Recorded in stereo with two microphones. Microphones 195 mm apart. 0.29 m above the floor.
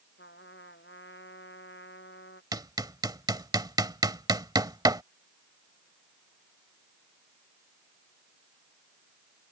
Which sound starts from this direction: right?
Hammering, at 2.5 s.